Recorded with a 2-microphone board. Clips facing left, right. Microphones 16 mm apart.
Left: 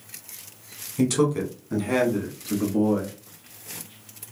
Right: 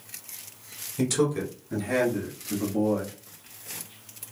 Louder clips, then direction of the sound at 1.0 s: Left 3 dB; 5° left (ahead or behind).